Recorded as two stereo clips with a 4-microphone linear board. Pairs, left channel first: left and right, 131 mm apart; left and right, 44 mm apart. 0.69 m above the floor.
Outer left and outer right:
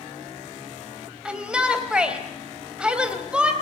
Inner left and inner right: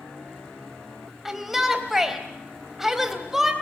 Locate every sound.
1.2 s a shout: 10° right (ahead or behind), 3.5 m